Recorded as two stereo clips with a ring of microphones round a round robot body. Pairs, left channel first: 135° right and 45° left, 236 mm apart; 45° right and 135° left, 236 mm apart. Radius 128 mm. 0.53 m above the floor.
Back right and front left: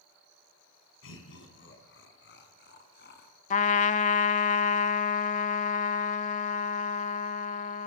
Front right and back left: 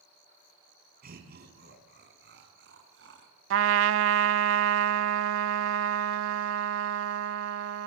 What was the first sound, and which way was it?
Laughter, 170° right.